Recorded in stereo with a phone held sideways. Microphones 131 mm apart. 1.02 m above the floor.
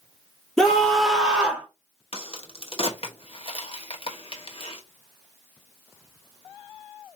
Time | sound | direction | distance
0.6 | a scream | 5° left (ahead or behind) | 2 m
2.1 | a crack | 50° left (ahead or behind) | 1.2 m